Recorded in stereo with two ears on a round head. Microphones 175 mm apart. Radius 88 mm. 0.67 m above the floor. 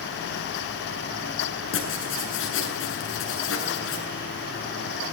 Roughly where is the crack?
No crack in this recording.